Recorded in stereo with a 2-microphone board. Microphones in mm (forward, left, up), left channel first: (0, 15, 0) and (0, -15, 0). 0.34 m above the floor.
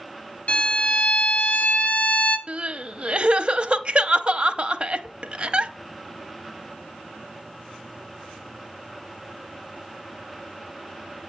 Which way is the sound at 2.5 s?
40° right (ahead or behind).